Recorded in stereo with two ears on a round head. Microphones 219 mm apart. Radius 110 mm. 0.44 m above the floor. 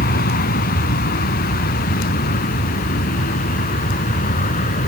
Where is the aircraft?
35° left (ahead or behind); by 4.9 s 30° left (ahead or behind).